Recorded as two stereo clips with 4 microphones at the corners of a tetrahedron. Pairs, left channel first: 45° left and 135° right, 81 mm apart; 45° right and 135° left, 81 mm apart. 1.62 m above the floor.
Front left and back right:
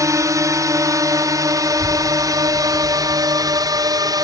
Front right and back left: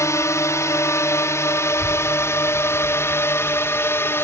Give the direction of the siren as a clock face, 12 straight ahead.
I don't hear a siren.